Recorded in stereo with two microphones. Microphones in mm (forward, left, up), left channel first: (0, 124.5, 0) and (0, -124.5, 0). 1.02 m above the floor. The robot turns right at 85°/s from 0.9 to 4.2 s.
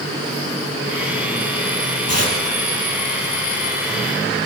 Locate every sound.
2.1 s tearing paper: 75° right (ahead or behind), 5.5 m